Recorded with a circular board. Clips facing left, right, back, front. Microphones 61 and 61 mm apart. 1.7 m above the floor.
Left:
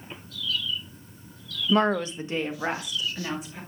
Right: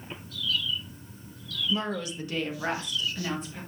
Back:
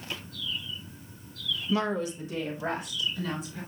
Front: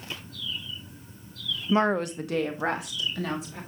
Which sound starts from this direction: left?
A woman speaking, at 1.7 s.